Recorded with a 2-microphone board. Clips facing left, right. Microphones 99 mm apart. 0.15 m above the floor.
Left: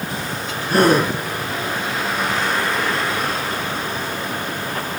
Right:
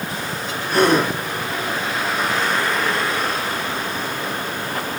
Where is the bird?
I don't hear a bird.